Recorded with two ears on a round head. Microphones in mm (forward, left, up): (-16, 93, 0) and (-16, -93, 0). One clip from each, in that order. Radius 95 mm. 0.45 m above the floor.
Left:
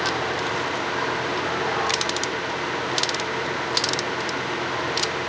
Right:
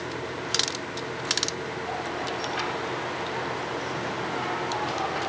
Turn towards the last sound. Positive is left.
No sound to turn to.